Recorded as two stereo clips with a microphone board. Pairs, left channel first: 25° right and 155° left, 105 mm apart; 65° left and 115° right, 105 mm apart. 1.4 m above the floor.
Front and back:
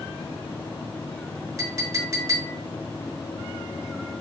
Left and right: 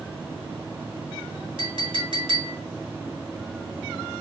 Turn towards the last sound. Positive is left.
turn(degrees=-145)